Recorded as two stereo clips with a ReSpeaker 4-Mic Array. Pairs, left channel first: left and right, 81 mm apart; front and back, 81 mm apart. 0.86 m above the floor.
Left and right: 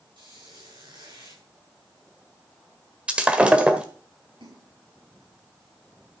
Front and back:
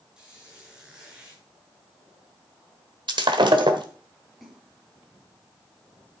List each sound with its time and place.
0.2 s a squeak: 100° right, 7 m
3.1 s breaking glass: 165° right, 1.3 m
4.4 s a splash: 95° right, 5 m